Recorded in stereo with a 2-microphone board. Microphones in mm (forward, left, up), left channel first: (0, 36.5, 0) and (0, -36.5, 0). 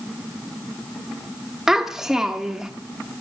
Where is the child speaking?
5° right (ahead or behind), 0.8 m.